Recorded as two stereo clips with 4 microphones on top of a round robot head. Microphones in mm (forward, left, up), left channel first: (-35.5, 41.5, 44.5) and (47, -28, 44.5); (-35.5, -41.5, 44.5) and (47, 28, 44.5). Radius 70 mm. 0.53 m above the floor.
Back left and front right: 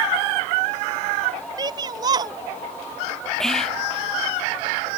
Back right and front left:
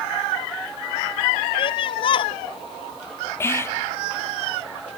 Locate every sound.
1.6 s a shout: 95° right
3.4 s whispering: 140° right